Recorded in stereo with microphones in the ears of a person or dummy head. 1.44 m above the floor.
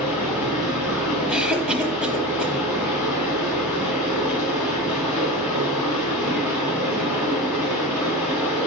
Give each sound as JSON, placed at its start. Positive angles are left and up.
{"t": 0.0, "sound": "running water", "side_deg": -5, "distance_m": 4.0}
{"t": 1.3, "sound": "a cough", "side_deg": -5, "distance_m": 1.2}